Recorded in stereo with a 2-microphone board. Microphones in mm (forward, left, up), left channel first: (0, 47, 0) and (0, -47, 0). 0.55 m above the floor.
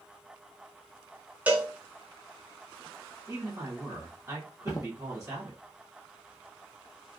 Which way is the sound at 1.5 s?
15° right (ahead or behind).